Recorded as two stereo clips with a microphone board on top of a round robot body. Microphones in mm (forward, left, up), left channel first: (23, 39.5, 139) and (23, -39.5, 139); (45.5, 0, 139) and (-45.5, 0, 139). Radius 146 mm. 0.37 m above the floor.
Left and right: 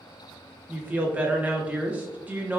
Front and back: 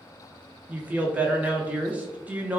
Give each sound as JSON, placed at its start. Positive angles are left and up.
{"t": 0.7, "sound": "a woman speaking", "azimuth_deg": -130, "distance_m": 0.8}